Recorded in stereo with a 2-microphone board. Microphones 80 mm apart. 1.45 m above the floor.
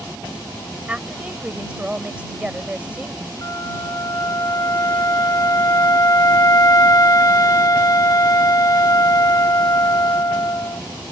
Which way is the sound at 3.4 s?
50° left (ahead or behind).